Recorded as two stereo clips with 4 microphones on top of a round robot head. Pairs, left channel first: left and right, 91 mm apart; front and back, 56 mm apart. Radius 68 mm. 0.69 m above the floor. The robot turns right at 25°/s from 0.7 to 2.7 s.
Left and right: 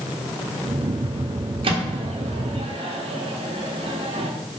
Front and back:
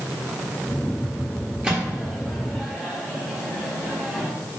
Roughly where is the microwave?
Right.